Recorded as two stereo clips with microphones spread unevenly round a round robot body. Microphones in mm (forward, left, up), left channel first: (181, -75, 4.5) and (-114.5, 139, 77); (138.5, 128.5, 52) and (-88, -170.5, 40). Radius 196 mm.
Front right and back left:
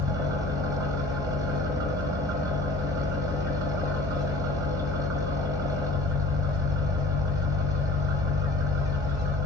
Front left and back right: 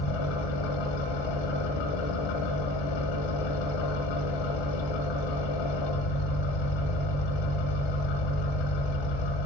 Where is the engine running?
60° left, 1.5 m.